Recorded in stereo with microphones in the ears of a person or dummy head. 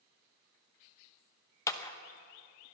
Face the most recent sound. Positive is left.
turn(degrees=20)  # may be behind; listen again after turning